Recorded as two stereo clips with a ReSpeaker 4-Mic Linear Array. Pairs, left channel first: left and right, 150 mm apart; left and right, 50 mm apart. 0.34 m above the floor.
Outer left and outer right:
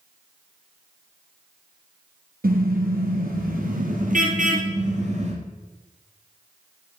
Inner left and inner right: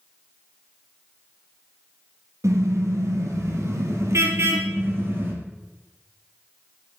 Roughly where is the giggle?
I don't hear a giggle.